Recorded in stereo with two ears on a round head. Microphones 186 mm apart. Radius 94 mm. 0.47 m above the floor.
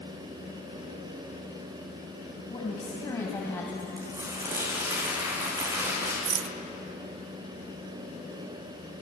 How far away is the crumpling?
About 10 m.